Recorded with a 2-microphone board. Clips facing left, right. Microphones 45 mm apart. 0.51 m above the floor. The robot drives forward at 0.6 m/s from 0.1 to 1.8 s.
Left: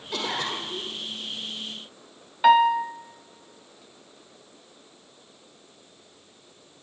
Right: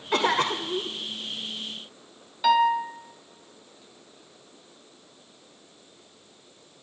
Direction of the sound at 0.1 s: 55° right (ahead or behind).